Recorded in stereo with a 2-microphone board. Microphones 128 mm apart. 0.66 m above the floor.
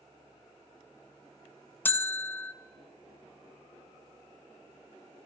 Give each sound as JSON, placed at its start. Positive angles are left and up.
{"t": 1.9, "sound": "a bell", "side_deg": 15, "distance_m": 0.5}